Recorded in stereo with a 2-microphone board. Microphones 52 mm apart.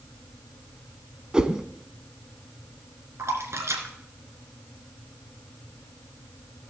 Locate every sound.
1.3 s a whoosh: 15° right (ahead or behind), 0.8 m
3.2 s a splash: 60° right (ahead or behind), 2.5 m